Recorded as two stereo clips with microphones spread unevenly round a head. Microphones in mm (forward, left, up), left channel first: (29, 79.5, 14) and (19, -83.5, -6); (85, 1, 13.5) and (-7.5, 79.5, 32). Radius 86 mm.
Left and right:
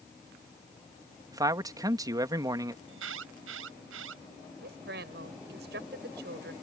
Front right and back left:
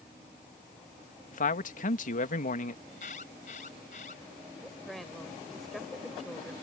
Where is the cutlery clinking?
I don't hear cutlery clinking.